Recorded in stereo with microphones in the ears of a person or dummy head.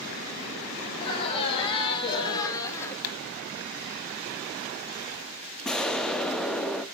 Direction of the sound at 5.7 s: 5° left (ahead or behind).